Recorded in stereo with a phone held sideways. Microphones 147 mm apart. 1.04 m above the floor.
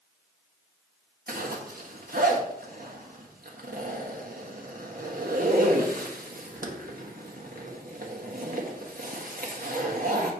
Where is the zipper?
70° right (ahead or behind), 1.3 m.